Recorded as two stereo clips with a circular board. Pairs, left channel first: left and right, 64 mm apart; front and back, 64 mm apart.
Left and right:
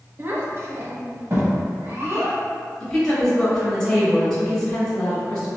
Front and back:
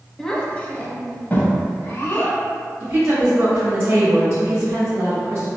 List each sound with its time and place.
0.2 s a child speaking: 75° right, 0.5 m; by 2.4 s 50° right, 1.4 m
2.8 s a woman speaking: 165° left, 1.2 m